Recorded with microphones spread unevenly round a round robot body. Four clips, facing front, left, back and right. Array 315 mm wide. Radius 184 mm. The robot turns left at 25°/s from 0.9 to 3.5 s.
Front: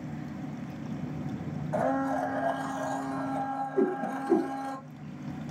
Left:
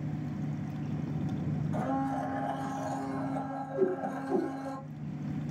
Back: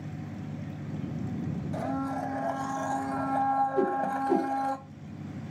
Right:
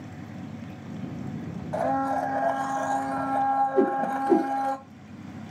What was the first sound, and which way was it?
A blender, 45° right.